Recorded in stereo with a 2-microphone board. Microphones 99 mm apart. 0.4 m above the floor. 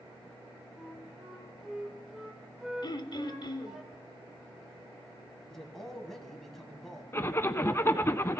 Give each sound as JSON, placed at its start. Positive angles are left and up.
{"t": 0.8, "sound": "a flute", "side_deg": -10, "distance_m": 1.6}
{"t": 2.8, "sound": "throat clearing", "side_deg": 45, "distance_m": 1.0}
{"t": 5.5, "sound": "a man speaking", "side_deg": 5, "distance_m": 2.5}
{"t": 7.1, "sound": "a zipper", "side_deg": 25, "distance_m": 0.6}